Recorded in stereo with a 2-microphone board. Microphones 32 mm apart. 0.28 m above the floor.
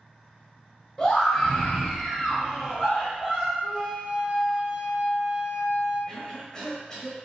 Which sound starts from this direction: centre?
A scream, at 1.0 s.